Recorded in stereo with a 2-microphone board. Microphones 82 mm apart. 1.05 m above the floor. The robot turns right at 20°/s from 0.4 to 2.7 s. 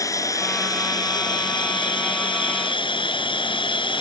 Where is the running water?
45° left; by 4.0 s 90° left.